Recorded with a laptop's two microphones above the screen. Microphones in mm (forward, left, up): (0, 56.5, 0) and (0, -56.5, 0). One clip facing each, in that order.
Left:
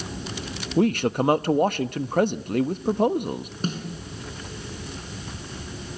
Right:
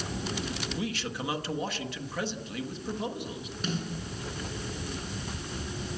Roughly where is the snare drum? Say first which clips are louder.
Left 3 dB; left.